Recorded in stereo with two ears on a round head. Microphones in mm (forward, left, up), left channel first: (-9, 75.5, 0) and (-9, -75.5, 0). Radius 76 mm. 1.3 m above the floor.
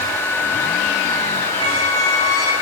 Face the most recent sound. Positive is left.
turn(degrees=20)  # may be behind; listen again after turning